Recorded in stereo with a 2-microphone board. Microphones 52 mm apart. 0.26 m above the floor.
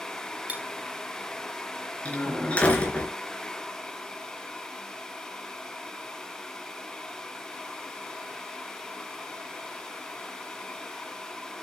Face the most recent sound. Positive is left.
turn(degrees=25)  # may be behind; listen again after turning